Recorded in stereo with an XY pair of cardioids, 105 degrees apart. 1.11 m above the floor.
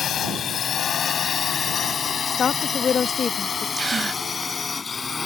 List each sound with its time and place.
0.0 s a drone: 60° left; by 5.3 s 35° left
2.3 s a woman speaking: 50° left
3.8 s a gasp: 25° right